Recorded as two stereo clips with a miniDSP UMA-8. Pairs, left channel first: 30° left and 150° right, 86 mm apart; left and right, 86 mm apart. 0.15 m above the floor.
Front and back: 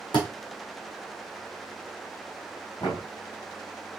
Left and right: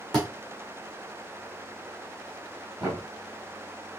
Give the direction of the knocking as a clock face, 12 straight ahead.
12 o'clock.